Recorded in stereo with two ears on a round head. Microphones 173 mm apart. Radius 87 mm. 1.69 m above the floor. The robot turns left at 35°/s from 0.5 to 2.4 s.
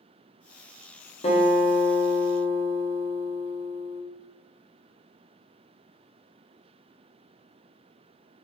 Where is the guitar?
120° left, 1.3 m; by 4.0 s 75° left, 1.3 m.